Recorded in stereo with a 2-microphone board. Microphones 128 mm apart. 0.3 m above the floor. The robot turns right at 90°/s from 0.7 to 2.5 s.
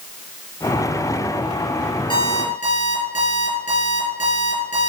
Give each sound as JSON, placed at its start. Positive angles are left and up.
{"t": 2.1, "sound": "an alarm clock", "azimuth_deg": 40, "distance_m": 3.0}